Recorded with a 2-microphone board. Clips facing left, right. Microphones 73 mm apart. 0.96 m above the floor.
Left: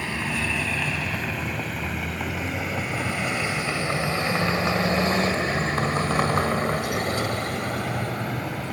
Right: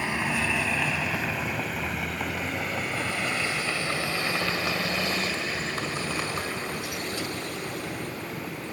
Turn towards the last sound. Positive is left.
turn(degrees=75)  # may be behind; listen again after turning